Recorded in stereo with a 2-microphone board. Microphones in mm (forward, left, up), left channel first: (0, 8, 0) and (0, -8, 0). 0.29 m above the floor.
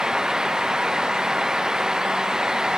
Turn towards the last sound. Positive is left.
No sound to turn to.